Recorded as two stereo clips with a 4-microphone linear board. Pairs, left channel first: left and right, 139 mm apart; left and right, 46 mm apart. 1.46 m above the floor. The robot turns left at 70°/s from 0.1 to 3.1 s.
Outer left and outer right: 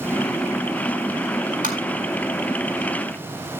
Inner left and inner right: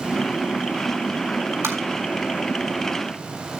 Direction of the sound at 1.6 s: 75° right (ahead or behind).